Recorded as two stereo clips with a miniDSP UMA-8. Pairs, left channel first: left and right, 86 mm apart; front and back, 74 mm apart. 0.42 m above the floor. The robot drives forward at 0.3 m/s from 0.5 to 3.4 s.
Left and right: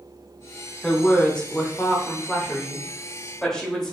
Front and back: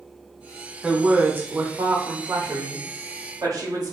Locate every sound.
0.8 s a woman speaking: 145° left, 0.8 m; by 3.9 s 170° left, 1.2 m